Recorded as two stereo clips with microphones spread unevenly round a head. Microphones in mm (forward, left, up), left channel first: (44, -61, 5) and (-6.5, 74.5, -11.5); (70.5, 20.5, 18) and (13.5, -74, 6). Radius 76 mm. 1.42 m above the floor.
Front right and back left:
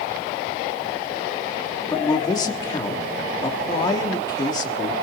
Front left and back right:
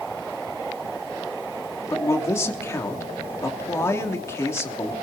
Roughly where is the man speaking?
Ahead.